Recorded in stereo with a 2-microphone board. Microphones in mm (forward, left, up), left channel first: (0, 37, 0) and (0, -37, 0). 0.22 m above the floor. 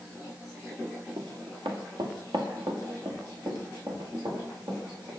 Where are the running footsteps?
85° right, 1.6 m; by 5.1 s 70° right (ahead or behind), 3.5 m.